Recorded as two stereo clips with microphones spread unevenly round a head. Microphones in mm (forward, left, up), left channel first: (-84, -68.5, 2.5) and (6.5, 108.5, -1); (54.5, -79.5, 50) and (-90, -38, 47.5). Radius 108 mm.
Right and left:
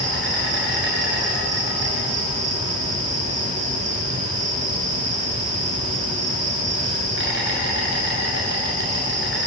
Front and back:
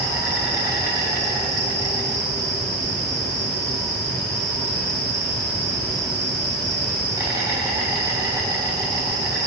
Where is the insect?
90° left, 7.5 m.